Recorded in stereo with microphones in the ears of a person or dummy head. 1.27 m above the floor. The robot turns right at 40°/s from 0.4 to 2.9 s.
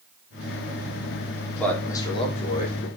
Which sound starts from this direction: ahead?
A man speaking, at 1.6 s.